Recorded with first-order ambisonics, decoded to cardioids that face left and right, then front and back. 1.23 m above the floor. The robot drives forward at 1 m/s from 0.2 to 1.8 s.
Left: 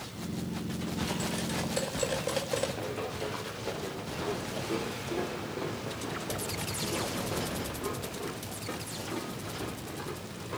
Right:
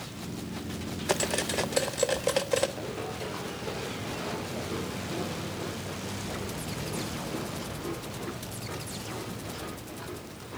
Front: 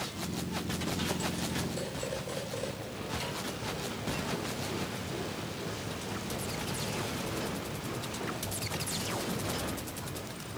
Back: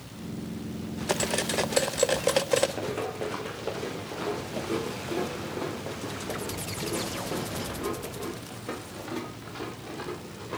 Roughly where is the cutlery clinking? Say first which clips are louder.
Right 9 dB, back 7 dB; behind right.